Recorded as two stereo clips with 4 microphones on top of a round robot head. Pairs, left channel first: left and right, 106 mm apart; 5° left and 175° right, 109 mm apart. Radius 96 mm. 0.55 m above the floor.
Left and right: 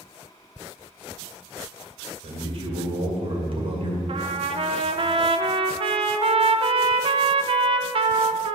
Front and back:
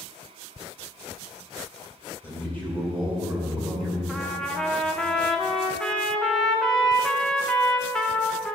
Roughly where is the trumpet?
Right.